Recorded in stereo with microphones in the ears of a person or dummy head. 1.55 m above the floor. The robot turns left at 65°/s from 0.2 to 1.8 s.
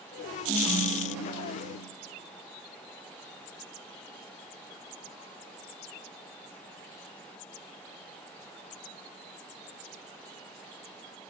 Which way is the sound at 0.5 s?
Straight behind.